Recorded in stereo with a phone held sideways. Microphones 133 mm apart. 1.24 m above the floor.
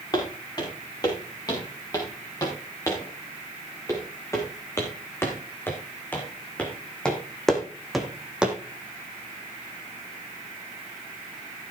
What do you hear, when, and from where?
0.1 s footsteps: 30° left (ahead or behind), 6 m; by 8.6 s 10° right (ahead or behind), 2 m